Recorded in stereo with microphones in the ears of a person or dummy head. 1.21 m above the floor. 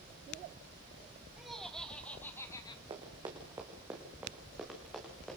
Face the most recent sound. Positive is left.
turn(degrees=0)  # may be behind; listen again after turning